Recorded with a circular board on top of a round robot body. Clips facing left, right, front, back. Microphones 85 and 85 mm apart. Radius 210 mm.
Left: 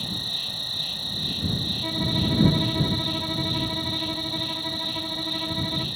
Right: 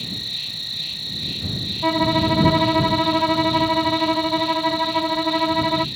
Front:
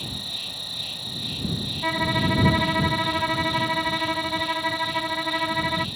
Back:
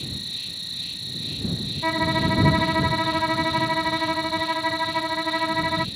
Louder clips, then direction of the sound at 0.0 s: Even, front 1 dB; 40° left.